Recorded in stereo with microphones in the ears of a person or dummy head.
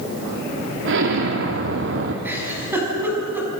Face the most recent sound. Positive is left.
turn(degrees=-15)  # may be behind; listen again after turning